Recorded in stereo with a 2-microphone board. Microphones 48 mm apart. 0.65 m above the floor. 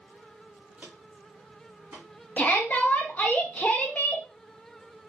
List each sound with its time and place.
0.8 s footsteps: 35° right (ahead or behind), 0.7 m; by 2.1 s 45° right (ahead or behind), 1.9 m
2.4 s a shout: 30° left (ahead or behind), 0.6 m